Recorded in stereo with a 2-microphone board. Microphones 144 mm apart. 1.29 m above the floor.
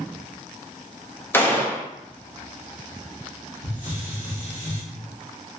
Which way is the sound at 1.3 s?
15° left (ahead or behind).